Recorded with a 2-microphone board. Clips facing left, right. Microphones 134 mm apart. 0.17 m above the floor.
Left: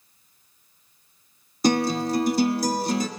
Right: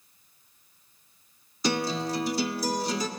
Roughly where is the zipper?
I don't hear a zipper.